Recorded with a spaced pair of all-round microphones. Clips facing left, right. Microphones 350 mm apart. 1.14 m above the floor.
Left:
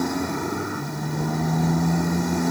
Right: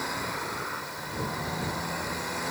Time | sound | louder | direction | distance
0.0 | a motorcycle | left 12 dB | 55° left (ahead or behind) | ?